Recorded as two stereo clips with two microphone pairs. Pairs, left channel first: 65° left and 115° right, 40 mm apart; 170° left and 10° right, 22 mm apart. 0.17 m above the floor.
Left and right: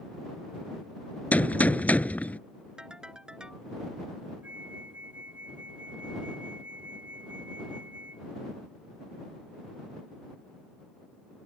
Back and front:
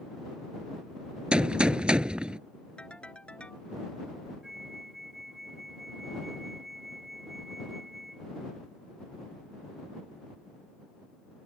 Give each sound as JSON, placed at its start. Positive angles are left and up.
{"t": 1.3, "sound": "a gunshot", "azimuth_deg": 20}
{"t": 2.8, "sound": "a ringtone", "azimuth_deg": 180}
{"t": 4.4, "sound": "a flute", "azimuth_deg": -85}